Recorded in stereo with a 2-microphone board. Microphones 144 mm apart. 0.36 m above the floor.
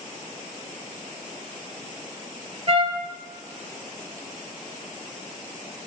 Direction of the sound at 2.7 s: 45° right (ahead or behind).